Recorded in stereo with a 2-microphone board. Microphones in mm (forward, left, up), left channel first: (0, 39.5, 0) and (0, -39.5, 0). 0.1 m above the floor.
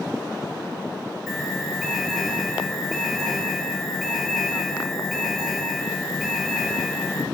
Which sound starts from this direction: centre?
An alarm, at 1.3 s.